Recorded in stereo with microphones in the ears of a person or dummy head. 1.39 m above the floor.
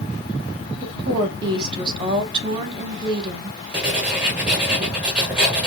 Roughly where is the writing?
Centre.